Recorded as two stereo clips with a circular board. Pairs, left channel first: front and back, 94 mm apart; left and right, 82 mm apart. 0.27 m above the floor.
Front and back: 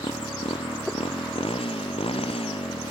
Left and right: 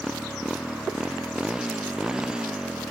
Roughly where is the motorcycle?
Ahead.